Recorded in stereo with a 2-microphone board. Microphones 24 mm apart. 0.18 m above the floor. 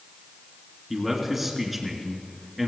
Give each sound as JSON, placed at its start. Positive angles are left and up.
{"t": 0.9, "sound": "a man speaking", "side_deg": -10, "distance_m": 2.5}